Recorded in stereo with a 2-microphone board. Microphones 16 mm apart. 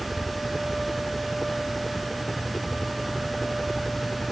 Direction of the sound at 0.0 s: 25° left (ahead or behind).